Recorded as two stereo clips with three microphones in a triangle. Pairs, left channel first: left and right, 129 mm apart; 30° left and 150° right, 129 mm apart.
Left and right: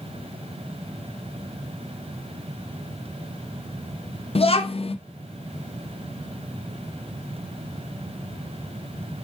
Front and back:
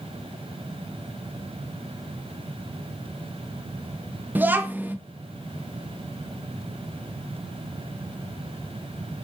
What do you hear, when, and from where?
4.3 s a child speaking: 135° left, 0.5 m